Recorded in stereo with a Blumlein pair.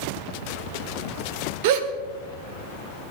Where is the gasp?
50° right, 1.5 m.